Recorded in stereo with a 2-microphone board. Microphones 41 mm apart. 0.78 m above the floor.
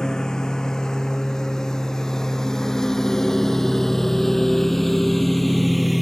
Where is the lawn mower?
20° left (ahead or behind); by 6.0 s centre (ahead or behind).